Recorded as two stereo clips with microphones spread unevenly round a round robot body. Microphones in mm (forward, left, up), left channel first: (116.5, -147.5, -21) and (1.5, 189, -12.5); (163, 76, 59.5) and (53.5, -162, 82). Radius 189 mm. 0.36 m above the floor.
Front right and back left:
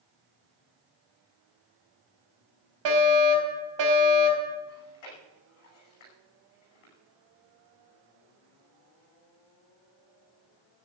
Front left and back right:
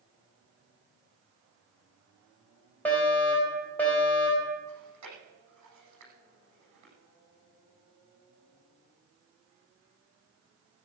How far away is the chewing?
About 9.5 m.